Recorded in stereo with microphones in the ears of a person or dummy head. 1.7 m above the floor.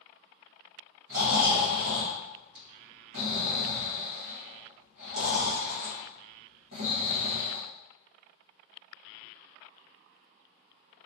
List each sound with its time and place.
1.1 s snoring: 60° right (ahead or behind), 1.2 m